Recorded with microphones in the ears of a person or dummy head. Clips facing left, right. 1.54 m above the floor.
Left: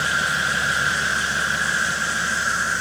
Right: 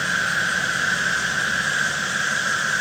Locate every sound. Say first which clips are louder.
0.0 s an insect: left 1 dB; centre (ahead or behind), 1.6 m